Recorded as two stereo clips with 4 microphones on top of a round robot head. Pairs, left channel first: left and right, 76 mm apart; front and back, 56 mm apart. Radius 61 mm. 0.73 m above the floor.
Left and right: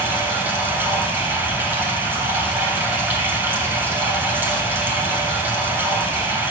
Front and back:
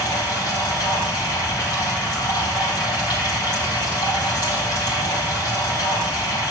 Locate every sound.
0.0 s running water: 25° right, 3 m